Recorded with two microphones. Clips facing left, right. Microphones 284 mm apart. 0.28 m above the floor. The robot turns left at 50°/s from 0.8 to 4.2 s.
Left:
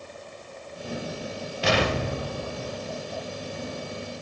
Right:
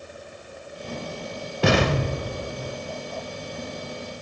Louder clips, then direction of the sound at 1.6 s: Right 4 dB; 120° right.